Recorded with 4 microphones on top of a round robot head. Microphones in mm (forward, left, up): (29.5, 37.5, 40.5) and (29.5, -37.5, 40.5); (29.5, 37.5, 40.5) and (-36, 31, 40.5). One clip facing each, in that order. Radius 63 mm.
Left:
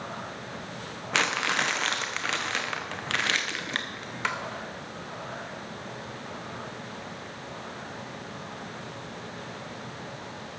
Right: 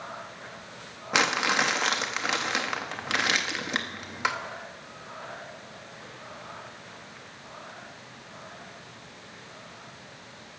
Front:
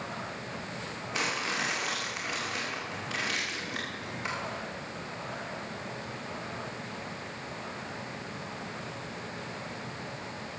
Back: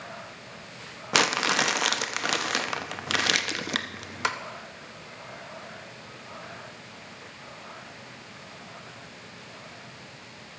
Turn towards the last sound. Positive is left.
turn(degrees=-170)